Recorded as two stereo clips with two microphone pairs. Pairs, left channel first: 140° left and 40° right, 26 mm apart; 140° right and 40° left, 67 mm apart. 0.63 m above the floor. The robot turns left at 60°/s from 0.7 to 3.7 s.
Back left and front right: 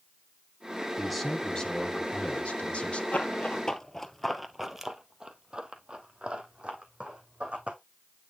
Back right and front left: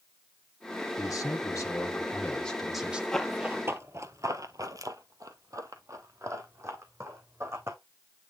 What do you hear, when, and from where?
1.0 s a man speaking: 125° right, 1.8 m; by 3.0 s 110° left, 1.8 m
3.1 s running footsteps: 140° left, 1.1 m; by 7.8 s 5° right, 2.5 m